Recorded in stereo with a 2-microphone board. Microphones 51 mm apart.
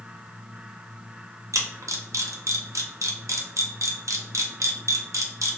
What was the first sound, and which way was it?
A camera shutter, 85° right.